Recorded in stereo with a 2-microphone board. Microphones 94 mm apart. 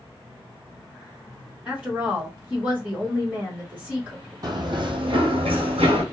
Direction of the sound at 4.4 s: 45° right (ahead or behind).